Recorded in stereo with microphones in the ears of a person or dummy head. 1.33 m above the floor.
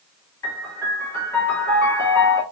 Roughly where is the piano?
Centre.